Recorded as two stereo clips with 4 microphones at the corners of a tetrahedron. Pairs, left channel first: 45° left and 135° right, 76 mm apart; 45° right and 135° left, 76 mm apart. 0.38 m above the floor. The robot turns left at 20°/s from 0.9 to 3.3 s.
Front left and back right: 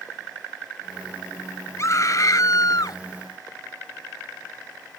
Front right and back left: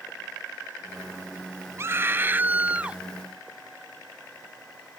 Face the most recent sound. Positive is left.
turn(degrees=55)